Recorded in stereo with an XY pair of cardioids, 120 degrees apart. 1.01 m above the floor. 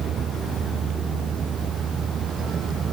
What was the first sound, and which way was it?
A vehicle, 45° right.